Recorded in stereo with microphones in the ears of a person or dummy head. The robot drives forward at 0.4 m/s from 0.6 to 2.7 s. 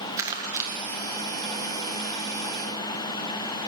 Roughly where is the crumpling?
Centre.